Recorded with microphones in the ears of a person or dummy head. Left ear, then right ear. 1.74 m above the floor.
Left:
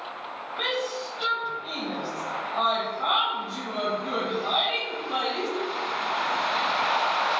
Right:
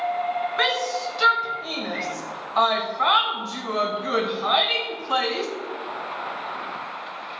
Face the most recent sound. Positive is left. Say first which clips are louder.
# right 3 dB
turn(degrees=-55)  # may be behind; listen again after turning